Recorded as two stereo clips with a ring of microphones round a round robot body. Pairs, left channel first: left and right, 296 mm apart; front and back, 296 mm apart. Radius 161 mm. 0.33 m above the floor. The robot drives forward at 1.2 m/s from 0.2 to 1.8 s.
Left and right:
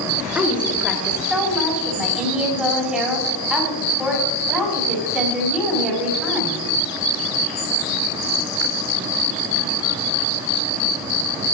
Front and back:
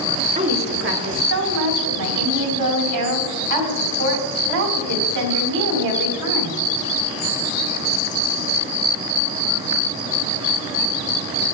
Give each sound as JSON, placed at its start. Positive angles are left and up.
{"t": 0.3, "sound": "a woman speaking", "azimuth_deg": -165, "distance_m": 1.4}